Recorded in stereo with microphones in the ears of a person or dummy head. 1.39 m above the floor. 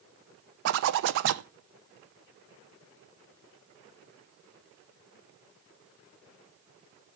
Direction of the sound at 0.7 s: 65° right (ahead or behind).